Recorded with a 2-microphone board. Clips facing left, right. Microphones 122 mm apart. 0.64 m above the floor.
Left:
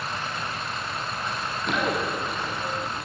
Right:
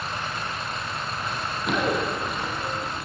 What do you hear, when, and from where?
1.3 s running footsteps: 5° right (ahead or behind), 7.5 m